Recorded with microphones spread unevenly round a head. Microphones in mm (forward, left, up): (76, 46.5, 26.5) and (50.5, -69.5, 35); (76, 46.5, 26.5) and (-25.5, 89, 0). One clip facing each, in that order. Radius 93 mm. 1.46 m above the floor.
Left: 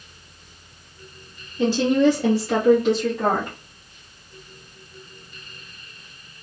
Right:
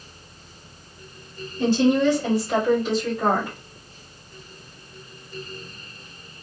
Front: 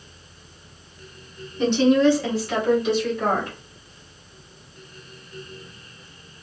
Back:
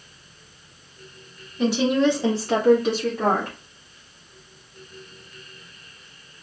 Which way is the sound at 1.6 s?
70° left.